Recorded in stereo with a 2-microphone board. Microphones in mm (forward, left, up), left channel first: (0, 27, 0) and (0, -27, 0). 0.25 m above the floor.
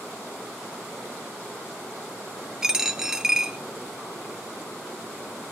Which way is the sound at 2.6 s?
10° right (ahead or behind).